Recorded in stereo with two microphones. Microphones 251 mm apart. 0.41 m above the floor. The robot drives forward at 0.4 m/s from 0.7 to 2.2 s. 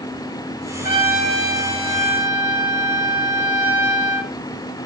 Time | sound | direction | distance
0.8 | a trumpet | 35° left (ahead or behind) | 1.2 m